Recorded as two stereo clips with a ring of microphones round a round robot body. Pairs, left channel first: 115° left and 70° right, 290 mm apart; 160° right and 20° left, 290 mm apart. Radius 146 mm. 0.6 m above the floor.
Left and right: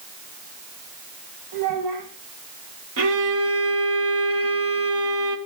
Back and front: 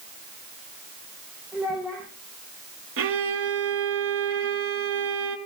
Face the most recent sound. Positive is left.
turn(degrees=-25)